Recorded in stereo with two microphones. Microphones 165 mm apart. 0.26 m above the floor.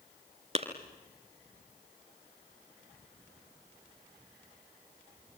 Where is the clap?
45° right (ahead or behind), 3 m.